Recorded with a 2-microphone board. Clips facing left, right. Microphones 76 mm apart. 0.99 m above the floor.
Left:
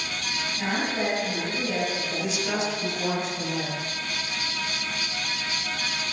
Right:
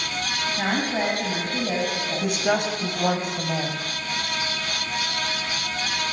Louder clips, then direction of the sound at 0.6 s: Right 2 dB; 45° right (ahead or behind).